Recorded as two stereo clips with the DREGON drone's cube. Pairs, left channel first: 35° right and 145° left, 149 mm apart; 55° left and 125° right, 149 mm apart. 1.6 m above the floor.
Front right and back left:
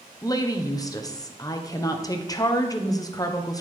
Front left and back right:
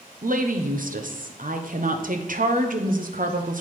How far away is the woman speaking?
About 1.0 m.